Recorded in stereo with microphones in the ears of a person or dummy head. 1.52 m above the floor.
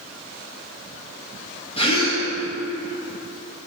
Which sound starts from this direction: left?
A gasp, at 1.8 s.